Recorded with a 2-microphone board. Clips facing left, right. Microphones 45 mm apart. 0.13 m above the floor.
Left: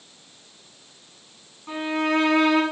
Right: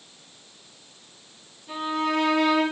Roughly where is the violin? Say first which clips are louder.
Left 2 dB; left.